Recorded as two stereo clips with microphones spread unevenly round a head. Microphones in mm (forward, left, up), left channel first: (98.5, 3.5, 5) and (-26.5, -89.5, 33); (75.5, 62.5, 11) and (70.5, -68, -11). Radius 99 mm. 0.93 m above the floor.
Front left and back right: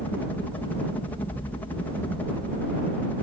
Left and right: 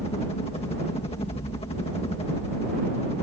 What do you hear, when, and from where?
0.0 s a helicopter: 90° left